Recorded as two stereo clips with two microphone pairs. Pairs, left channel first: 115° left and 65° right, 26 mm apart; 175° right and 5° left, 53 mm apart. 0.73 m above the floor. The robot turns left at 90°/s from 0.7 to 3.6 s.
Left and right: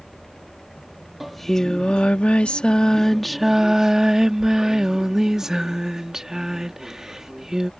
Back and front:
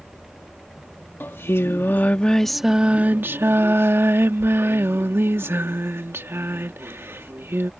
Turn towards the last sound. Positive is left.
turn(degrees=0)